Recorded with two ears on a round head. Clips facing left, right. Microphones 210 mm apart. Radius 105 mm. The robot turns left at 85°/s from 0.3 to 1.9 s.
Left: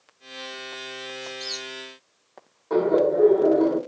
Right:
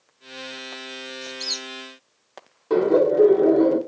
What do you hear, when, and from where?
1.2 s a squeak: 25° right (ahead or behind), 0.7 m; by 1.7 s 60° right (ahead or behind), 0.7 m
2.7 s laughter: 40° right (ahead or behind), 1.0 m